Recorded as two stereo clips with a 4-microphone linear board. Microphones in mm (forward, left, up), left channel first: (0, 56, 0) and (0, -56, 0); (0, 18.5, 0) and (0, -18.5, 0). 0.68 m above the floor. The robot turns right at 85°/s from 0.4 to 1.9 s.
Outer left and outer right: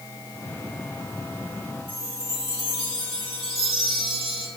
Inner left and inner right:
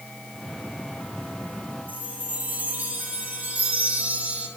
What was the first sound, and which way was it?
A chime, 60° right (ahead or behind).